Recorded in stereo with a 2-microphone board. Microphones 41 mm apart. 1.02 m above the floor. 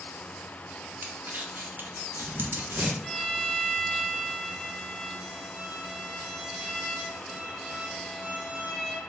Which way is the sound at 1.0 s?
55° right (ahead or behind).